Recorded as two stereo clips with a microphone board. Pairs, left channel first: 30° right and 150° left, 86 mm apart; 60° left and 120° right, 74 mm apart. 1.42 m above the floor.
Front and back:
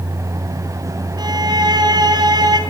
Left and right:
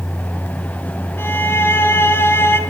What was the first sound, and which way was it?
A violin, 115° left.